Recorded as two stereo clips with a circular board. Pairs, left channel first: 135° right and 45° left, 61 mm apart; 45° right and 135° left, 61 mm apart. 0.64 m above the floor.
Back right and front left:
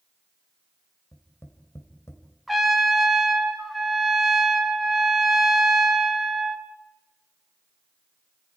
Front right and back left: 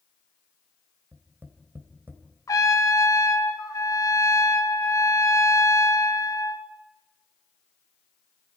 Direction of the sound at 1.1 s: 175° right.